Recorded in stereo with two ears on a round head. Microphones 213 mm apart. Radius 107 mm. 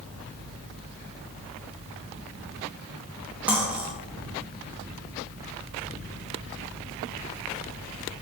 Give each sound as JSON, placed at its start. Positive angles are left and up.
{"t": 3.5, "sound": "cutlery clinking", "side_deg": -5, "distance_m": 0.6}